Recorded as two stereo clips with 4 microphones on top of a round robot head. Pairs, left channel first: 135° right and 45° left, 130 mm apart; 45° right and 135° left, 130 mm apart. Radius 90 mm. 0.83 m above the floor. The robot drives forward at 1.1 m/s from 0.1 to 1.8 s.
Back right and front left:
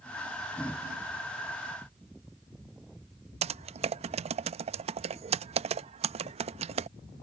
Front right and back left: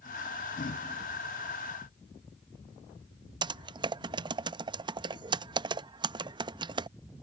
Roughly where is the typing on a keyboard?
Left.